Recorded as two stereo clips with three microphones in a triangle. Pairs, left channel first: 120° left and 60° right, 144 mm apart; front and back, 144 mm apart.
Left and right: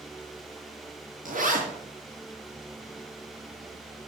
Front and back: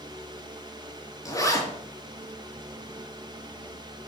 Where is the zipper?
65° right, 3 m.